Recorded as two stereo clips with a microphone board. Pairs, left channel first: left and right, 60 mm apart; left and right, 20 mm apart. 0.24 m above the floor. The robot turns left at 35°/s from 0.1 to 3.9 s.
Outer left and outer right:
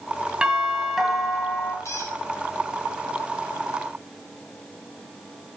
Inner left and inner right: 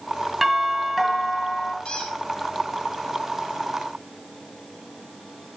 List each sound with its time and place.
0.4 s a doorbell: 155° right, 2 m; by 1.8 s 155° left, 2 m
1.9 s a squeak: 50° left (ahead or behind), 2.5 m; by 2.1 s 35° left (ahead or behind), 2.5 m